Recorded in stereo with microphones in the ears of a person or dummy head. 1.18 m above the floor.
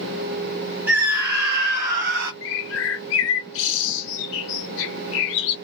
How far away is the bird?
About 0.8 m.